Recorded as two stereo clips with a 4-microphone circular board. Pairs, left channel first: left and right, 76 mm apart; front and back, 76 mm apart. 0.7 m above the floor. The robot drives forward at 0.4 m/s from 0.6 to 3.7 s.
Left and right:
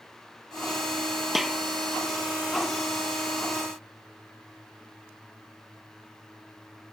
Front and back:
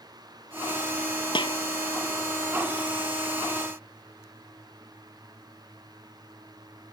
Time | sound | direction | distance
1.4 | a snare drum | 5° right | ?